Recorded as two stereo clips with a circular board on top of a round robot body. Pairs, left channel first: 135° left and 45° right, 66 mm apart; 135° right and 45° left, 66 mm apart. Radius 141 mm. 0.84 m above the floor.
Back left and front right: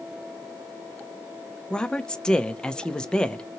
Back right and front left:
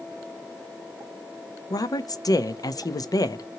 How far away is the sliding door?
No sliding door in this recording.